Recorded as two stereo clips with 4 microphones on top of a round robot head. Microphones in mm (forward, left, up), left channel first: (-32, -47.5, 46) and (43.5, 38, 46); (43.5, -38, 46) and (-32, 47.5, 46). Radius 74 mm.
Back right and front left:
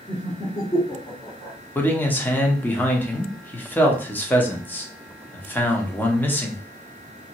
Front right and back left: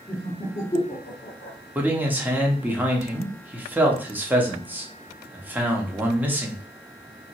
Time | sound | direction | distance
0.1 | laughter | 105° right | 1.0 m
1.8 | a man speaking | straight behind | 0.9 m